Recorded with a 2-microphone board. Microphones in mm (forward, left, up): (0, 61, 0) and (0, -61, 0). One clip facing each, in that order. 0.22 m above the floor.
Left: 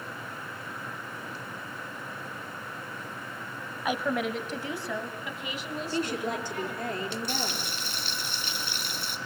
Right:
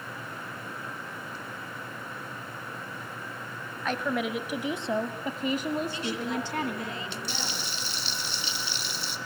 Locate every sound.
3.9 s a woman speaking: 10° left (ahead or behind), 1.1 m; by 6.9 s 60° right (ahead or behind), 2.0 m
5.9 s a woman speaking: 45° left (ahead or behind), 6 m
7.3 s frying: 50° left (ahead or behind), 2.5 m